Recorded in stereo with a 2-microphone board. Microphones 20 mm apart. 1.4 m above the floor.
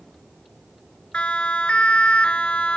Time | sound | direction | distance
1.1 | a siren | 85° left | ?